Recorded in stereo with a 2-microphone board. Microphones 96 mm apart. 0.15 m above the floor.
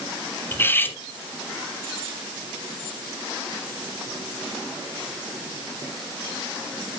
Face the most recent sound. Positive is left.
turn(degrees=20)  # may be behind; listen again after turning